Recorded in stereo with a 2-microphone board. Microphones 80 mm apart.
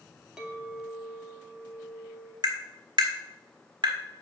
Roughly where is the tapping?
Right.